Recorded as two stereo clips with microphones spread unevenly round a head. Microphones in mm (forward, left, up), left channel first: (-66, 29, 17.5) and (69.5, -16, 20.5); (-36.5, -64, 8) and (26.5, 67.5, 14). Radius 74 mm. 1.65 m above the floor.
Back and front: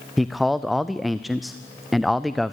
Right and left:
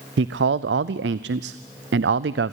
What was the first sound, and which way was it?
A man speaking, 70° left.